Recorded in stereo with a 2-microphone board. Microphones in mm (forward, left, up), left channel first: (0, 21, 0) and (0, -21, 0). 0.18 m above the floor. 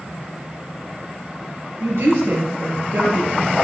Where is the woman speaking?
65° right (ahead or behind), 4 m.